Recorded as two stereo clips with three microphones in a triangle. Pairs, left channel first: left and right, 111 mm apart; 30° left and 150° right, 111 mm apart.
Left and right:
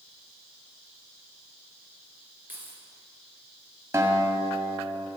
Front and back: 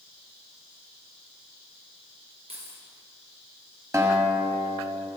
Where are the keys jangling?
165° right, 3 m.